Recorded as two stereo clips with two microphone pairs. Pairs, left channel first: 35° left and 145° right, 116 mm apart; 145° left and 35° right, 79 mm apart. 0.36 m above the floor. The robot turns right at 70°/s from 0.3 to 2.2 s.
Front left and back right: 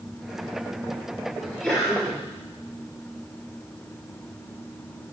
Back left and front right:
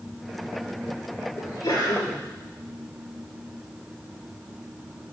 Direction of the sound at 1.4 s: 95° left.